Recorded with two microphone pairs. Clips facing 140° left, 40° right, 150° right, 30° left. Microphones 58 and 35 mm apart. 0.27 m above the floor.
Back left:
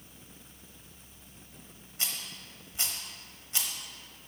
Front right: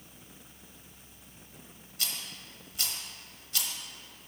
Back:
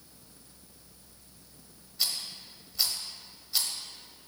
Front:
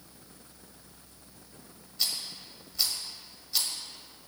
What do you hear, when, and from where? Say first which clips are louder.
2.0 s a rattle: even, even; 130° left, 0.9 m